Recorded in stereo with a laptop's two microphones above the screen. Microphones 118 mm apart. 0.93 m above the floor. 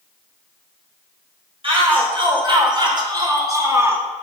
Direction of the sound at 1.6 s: 50° right (ahead or behind).